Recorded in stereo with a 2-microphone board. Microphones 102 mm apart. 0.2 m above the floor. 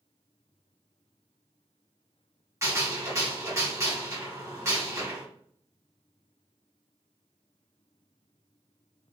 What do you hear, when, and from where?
2.6 s a gunshot: 30° right (ahead or behind), 1.5 m